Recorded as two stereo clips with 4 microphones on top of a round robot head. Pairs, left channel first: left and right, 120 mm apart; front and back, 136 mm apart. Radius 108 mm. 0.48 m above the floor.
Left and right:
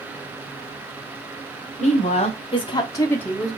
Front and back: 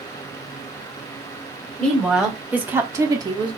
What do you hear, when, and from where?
1.8 s a woman speaking: 90° left, 2.5 m; by 3.6 s 165° right, 1.4 m